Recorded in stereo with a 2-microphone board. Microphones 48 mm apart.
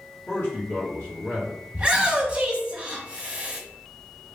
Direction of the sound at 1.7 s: 20° right (ahead or behind).